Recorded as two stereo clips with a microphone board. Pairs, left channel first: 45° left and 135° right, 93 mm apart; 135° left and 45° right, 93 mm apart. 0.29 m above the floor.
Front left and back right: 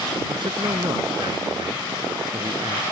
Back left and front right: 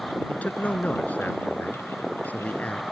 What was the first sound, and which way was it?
A man speaking, 155° right.